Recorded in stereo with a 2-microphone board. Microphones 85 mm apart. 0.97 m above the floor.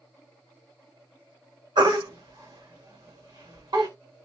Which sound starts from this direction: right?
A baby crying, at 1.8 s.